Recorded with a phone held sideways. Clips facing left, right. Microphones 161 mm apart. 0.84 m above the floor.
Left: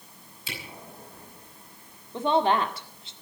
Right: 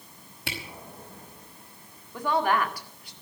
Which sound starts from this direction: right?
A camera shutter, at 0.5 s.